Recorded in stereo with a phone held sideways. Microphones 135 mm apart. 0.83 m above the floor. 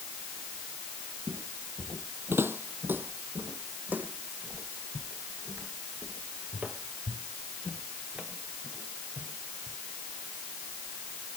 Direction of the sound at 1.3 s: 25° right (ahead or behind).